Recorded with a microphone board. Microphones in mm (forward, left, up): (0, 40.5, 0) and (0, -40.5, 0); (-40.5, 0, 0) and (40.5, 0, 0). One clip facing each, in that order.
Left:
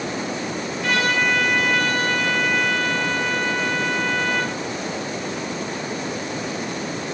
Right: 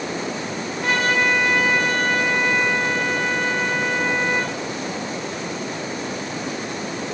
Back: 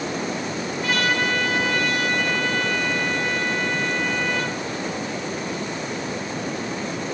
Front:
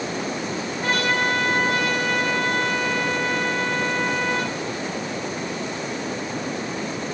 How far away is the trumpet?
About 1.8 m.